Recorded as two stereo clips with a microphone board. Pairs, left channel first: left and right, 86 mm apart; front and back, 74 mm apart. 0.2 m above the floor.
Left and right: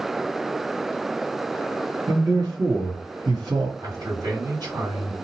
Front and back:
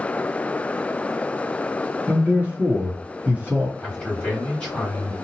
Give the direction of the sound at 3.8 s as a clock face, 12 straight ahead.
2 o'clock.